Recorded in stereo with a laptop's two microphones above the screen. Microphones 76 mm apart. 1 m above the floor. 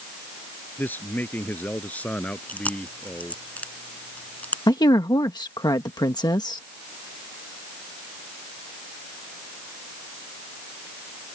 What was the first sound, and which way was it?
A man speaking, 25° left (ahead or behind).